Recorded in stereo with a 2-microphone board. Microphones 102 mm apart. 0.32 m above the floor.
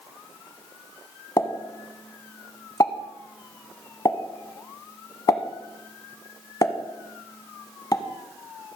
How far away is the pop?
About 1.0 m.